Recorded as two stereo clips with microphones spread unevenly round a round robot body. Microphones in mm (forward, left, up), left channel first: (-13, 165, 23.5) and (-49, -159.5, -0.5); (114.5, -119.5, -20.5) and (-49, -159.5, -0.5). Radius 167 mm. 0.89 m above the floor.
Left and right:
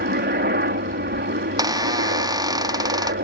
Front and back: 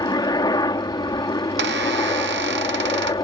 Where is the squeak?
175° right.